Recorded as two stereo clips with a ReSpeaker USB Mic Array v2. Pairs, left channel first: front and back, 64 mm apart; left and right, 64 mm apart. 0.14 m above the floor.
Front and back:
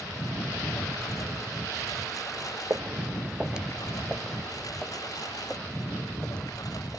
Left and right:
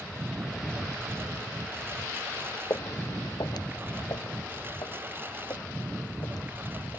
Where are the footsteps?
125° left; by 7.0 s 75° left.